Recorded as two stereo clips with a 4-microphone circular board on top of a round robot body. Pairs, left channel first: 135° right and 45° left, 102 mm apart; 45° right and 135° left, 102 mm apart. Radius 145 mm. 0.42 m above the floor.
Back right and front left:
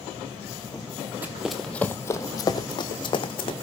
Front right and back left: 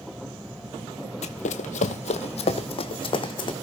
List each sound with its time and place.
1.2 s running footsteps: 30° right, 0.7 m; by 3.5 s 90° right, 1.5 m